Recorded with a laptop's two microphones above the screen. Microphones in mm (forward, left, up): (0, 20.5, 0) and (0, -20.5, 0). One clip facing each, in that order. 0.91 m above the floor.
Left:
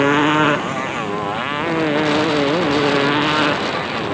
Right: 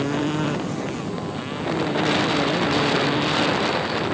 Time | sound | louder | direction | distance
0.0 | a motorcycle | left 9 dB | 50° left (ahead or behind) | ?